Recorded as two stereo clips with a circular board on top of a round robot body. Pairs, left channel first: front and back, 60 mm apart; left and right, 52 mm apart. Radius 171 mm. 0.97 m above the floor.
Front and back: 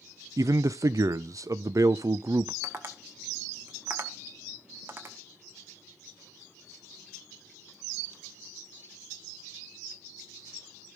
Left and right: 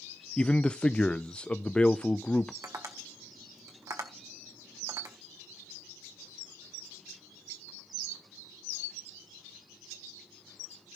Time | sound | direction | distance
0.4 | a man speaking | 160° left | 0.6 m
2.6 | tapping | 125° right | 0.7 m